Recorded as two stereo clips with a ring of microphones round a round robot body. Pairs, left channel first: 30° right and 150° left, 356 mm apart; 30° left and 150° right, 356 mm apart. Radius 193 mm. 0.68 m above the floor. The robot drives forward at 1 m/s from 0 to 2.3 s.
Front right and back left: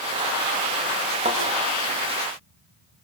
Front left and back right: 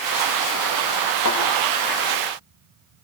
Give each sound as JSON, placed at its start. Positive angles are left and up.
{"t": 1.2, "sound": "a thud", "azimuth_deg": 85, "distance_m": 8.0}